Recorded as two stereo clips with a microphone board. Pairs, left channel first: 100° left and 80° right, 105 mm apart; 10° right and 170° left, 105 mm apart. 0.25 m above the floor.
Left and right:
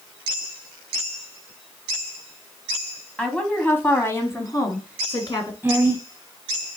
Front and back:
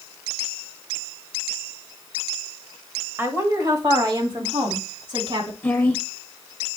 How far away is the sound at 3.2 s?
About 1.0 m.